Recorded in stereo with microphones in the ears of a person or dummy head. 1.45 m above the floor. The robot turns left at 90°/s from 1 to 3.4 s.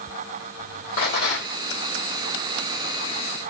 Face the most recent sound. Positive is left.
turn(degrees=-85)